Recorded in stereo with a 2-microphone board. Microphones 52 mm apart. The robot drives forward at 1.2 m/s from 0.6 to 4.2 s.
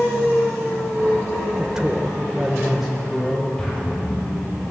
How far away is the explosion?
About 6.5 m.